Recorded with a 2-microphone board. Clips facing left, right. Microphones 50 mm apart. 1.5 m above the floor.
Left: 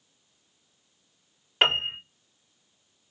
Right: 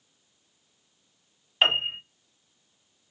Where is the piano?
75° left (ahead or behind), 3.5 m.